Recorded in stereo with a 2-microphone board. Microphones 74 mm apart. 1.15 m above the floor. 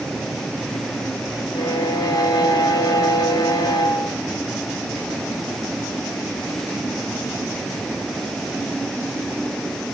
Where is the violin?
65° left (ahead or behind), 1.0 m.